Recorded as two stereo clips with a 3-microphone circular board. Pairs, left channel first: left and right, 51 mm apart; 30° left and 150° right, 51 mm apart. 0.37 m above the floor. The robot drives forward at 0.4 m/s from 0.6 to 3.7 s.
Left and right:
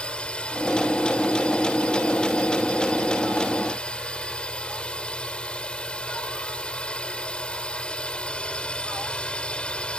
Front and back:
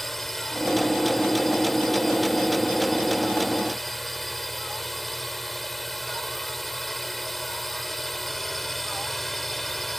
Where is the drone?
110° left; by 10.0 s 115° left.